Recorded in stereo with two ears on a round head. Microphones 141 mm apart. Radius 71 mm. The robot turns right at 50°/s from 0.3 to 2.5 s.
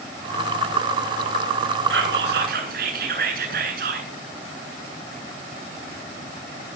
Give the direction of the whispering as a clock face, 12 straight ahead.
3 o'clock.